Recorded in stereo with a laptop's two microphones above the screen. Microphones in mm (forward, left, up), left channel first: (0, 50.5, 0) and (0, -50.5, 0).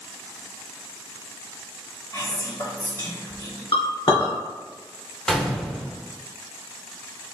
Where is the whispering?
50° left (ahead or behind), 1.7 m.